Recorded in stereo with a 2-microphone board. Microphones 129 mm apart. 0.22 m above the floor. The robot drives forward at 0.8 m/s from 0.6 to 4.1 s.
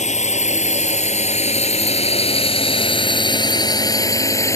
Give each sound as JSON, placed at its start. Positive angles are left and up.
{"t": 0.0, "sound": "a drone", "side_deg": 75}